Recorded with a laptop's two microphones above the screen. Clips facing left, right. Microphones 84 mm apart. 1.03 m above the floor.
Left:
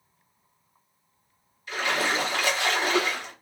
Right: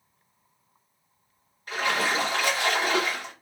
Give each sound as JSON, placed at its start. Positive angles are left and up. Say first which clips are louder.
{"t": 1.7, "sound": "a splash", "louder": "right 1 dB", "side_deg": -50, "distance_m": 1.1}